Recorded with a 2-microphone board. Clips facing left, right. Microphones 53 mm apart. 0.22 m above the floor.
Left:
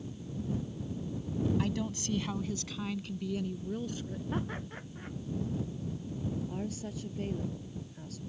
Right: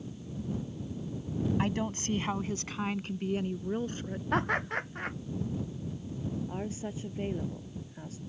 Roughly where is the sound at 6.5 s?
Right.